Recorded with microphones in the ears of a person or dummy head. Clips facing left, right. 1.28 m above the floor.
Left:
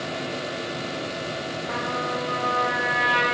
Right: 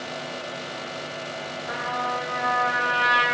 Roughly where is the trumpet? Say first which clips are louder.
Even; right.